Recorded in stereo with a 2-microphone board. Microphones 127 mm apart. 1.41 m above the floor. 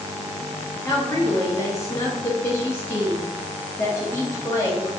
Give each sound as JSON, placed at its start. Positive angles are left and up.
{"t": 0.8, "sound": "a woman speaking", "side_deg": 20, "distance_m": 0.5}